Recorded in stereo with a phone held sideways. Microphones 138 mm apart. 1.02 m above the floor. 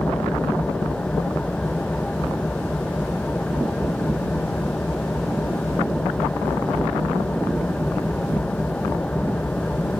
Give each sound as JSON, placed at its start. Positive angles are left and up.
{"t": 0.0, "sound": "an engine running", "side_deg": 10}